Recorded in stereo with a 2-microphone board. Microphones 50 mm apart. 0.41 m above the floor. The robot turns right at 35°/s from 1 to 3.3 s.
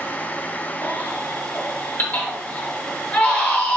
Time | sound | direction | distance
0.8 | a baby crying | 45° left (ahead or behind) | 1.2 m